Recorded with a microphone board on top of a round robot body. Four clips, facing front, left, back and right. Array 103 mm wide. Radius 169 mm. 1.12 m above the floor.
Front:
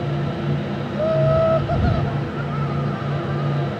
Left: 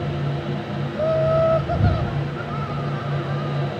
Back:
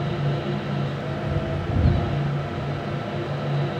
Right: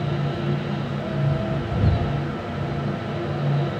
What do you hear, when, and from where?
0.9 s laughter: 45° left